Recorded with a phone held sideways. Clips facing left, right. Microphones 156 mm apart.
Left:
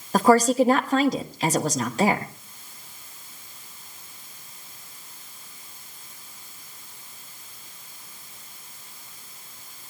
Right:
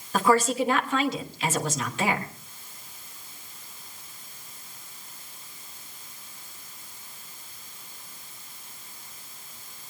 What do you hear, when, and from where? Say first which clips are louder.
0.1 s a woman speaking: left 5 dB; 40° left (ahead or behind), 1.2 m